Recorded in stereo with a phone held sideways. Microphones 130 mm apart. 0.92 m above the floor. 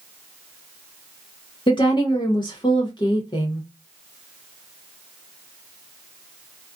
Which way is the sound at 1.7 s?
35° left (ahead or behind).